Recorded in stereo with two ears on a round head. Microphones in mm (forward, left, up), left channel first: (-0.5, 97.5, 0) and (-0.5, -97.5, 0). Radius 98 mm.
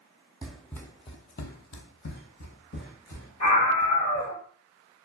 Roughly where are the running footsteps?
Centre.